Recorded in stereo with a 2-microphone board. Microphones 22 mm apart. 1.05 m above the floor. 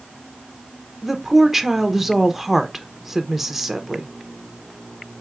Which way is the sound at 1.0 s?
5° right (ahead or behind).